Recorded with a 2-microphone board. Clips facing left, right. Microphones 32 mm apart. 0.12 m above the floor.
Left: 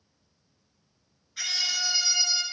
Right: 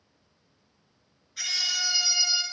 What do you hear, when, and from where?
1.4 s a scream: 10° left (ahead or behind), 1.6 m; by 2.4 s 20° right (ahead or behind), 1.3 m